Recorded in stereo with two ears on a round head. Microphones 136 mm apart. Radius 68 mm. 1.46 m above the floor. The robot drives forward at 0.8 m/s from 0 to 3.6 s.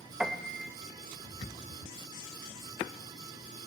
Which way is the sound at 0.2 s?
5° right (ahead or behind).